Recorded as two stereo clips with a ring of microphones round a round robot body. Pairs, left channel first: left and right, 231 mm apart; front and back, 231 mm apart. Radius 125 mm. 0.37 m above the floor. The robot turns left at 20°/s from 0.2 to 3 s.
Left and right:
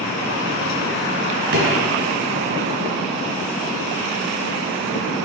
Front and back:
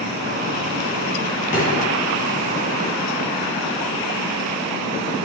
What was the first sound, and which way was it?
A drawer, 60° right.